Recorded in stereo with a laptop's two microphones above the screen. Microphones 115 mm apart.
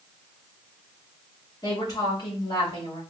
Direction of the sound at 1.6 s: 35° left (ahead or behind).